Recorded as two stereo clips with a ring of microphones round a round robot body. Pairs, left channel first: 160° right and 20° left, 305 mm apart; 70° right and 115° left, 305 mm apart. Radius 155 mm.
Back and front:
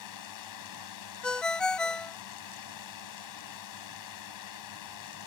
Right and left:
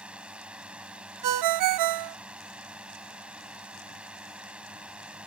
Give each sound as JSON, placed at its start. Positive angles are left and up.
{"t": 0.0, "sound": "a drone", "azimuth_deg": -160}
{"t": 1.2, "sound": "a ringtone", "azimuth_deg": 115}